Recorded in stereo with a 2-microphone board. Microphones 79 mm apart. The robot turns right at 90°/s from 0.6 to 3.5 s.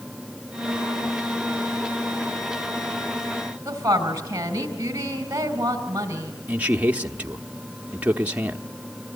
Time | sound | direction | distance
3.6 | a woman speaking | 35° right (ahead or behind) | 4 m
6.5 | a man speaking | 20° right (ahead or behind) | 0.9 m